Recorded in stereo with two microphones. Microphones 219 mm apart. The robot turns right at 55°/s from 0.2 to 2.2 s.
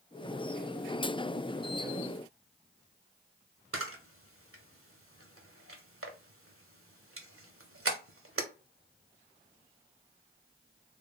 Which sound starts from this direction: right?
A camera shutter, at 3.7 s.